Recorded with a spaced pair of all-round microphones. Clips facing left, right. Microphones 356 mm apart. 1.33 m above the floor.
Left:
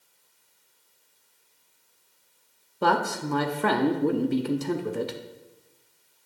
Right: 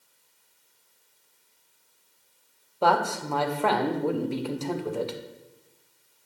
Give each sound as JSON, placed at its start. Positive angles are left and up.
{"t": 2.8, "sound": "a man speaking", "side_deg": 25, "distance_m": 0.7}